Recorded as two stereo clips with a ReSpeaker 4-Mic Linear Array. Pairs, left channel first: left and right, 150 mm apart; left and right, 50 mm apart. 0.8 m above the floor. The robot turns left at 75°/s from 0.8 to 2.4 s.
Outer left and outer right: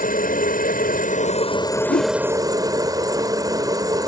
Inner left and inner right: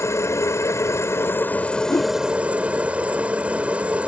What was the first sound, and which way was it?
A helicopter, 95° left.